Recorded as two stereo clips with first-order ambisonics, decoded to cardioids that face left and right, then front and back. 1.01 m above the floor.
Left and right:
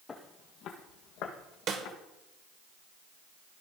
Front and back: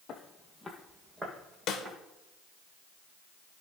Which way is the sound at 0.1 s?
30° left.